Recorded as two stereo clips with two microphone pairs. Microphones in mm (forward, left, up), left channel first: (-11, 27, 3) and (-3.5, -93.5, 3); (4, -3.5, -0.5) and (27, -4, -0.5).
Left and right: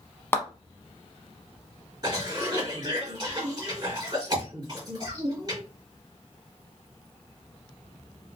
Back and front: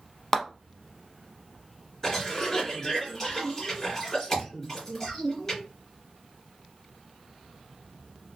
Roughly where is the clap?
Behind left.